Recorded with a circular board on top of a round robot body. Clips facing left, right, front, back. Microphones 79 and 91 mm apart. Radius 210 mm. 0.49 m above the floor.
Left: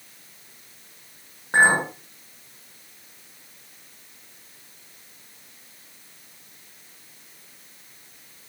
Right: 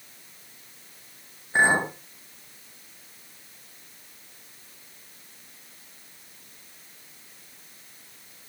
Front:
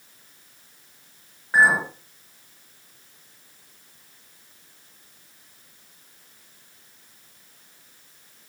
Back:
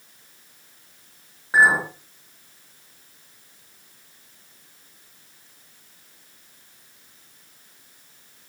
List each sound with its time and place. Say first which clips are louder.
1.5 s a clink: left 3 dB, back 1 dB; 100° left, 6.5 m